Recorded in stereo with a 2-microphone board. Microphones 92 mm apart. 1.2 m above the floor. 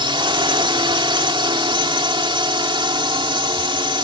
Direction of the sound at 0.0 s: 70° right (ahead or behind).